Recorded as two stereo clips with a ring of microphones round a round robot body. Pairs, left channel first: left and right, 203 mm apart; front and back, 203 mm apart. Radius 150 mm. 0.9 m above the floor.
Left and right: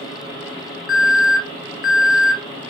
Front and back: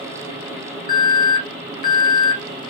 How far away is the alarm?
About 1.7 m.